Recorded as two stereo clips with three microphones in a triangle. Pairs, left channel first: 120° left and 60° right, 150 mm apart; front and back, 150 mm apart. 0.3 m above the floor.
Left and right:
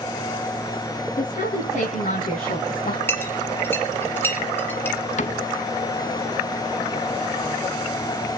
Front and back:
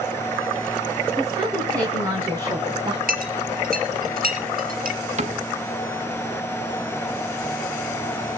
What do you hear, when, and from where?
1.2 s a woman speaking: 115° left, 5 m; by 3.0 s 130° left, 2.5 m
3.1 s a clink: 165° right, 4 m
5.2 s a cupboard door: 145° left, 1.2 m